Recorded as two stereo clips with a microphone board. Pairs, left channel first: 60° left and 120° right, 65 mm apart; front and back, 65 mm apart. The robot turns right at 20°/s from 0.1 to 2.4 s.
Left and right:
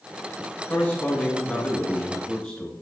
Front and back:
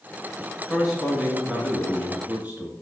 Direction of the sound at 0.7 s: 100° left.